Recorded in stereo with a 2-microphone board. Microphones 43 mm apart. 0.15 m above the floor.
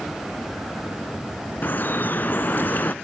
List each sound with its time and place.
1.6 s dripping: 45° left (ahead or behind), 0.7 m